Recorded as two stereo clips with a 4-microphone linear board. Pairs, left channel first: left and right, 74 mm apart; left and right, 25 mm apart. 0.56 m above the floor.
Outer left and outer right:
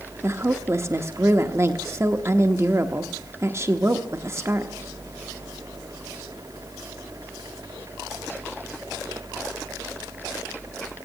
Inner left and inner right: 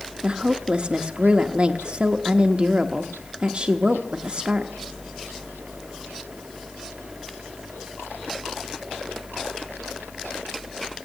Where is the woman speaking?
40° right (ahead or behind), 0.8 m.